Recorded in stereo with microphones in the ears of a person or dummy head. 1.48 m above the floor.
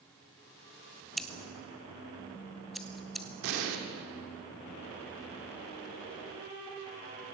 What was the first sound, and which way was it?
Scissors, centre (ahead or behind).